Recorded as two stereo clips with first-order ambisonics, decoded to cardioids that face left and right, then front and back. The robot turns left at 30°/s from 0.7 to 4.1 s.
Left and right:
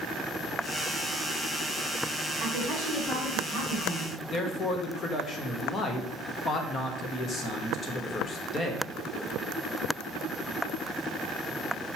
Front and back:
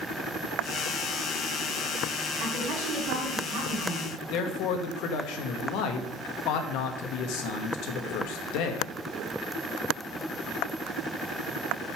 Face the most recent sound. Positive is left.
turn(degrees=25)